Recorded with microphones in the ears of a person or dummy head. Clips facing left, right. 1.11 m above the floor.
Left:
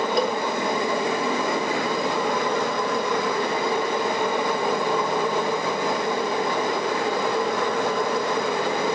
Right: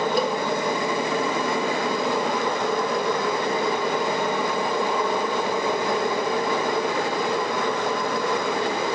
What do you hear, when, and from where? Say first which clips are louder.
0.2 s a cowbell: left 3 dB; 5° right (ahead or behind), 1.5 m